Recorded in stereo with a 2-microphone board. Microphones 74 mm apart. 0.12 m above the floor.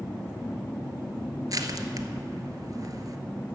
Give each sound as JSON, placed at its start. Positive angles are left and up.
{"t": 1.5, "sound": "crushing", "side_deg": -55, "distance_m": 0.9}